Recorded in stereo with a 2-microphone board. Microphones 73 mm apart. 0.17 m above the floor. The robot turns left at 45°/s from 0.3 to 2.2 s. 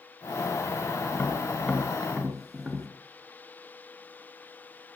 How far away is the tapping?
About 3 m.